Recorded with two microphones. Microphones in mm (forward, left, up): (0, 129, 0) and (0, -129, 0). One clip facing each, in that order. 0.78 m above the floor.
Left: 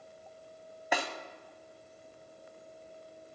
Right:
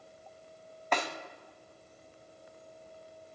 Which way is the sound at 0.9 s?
10° left (ahead or behind).